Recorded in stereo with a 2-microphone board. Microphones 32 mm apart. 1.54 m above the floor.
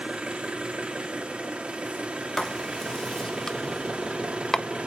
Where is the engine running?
30° right (ahead or behind), 1.4 m.